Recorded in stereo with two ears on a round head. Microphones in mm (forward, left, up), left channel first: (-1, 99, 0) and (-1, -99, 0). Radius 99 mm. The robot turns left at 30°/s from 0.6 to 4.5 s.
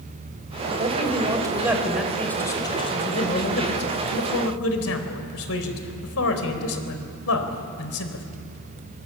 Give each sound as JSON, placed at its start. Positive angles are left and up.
{"t": 0.8, "sound": "a man speaking", "azimuth_deg": -145, "distance_m": 4.0}